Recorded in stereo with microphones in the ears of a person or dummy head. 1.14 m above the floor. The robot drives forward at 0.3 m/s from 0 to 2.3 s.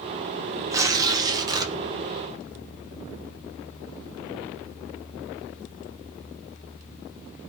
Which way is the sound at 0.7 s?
20° right (ahead or behind).